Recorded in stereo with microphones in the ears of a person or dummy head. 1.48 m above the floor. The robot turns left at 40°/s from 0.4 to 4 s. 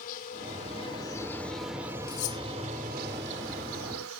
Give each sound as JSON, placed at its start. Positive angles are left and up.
{"t": 0.0, "sound": "an insect", "azimuth_deg": 50}
{"t": 2.1, "sound": "cutlery clinking", "side_deg": 45}